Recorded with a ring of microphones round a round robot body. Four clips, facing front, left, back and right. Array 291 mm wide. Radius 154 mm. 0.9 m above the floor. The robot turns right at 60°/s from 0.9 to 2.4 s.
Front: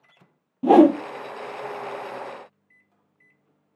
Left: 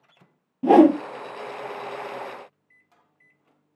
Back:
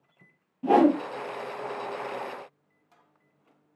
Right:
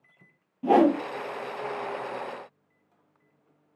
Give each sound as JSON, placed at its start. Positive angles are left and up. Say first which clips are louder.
{"t": 0.6, "sound": "a whoosh", "louder": "left 6 dB, front 6 dB", "azimuth_deg": 40, "distance_m": 0.7}